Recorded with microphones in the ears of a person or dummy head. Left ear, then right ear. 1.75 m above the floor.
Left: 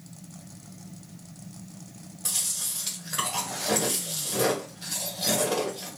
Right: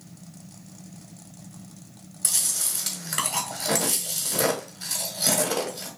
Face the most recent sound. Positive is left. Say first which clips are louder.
# right 3 dB
turn(degrees=-65)  # may be behind; listen again after turning